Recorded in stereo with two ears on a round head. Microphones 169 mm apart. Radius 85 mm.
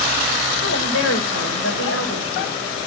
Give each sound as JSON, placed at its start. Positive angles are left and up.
{"t": 0.6, "sound": "a woman speaking", "side_deg": 80, "distance_m": 6.0}